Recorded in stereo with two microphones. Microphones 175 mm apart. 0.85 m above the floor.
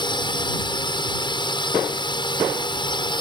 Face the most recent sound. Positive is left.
turn(degrees=25)  # may be behind; listen again after turning